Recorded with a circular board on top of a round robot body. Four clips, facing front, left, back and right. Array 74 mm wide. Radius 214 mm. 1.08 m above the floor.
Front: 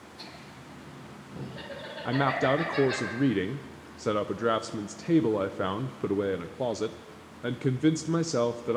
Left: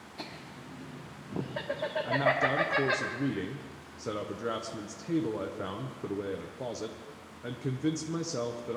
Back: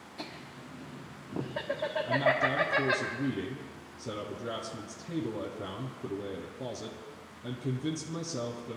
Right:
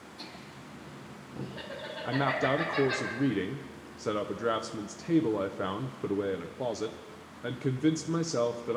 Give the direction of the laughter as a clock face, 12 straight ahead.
8 o'clock.